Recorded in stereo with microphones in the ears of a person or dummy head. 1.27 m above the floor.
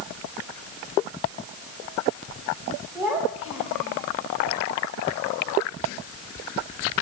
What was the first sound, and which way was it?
A child speaking, 10° right (ahead or behind).